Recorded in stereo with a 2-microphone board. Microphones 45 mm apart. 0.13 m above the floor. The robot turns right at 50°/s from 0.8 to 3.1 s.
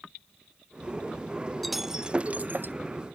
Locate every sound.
1.6 s breaking glass: centre (ahead or behind); by 2.7 s 55° right (ahead or behind)